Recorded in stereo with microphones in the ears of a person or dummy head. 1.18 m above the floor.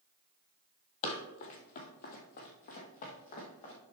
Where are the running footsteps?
40° left (ahead or behind), 1.6 m; by 3.7 s 25° left (ahead or behind), 2.5 m.